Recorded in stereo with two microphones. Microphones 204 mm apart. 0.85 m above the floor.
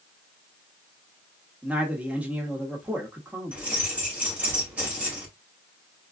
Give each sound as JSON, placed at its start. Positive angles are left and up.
{"t": 1.6, "sound": "a man speaking", "side_deg": -5, "distance_m": 1.2}
{"t": 3.5, "sound": "keys jangling", "side_deg": -5, "distance_m": 2.5}